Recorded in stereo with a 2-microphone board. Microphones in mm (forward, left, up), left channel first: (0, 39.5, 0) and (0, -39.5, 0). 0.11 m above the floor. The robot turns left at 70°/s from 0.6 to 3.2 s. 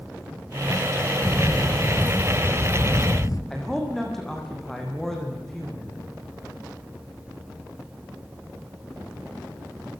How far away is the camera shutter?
About 1.9 m.